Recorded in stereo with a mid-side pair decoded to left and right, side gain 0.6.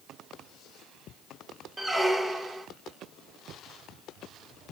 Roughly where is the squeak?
Ahead.